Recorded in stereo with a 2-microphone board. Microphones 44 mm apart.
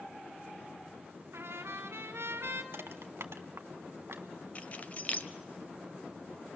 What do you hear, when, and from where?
1.3 s a trumpet: 70° right (ahead or behind), 2.0 m
2.7 s crushing: 70° right (ahead or behind), 0.9 m
4.5 s keys jangling: 35° left (ahead or behind), 0.6 m